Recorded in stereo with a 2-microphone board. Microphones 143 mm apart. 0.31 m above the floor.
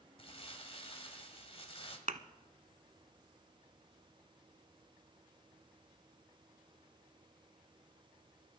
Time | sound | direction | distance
0.2 | crumpling | 45° left (ahead or behind) | 1.9 m
2.1 | a thud | 65° right (ahead or behind) | 0.9 m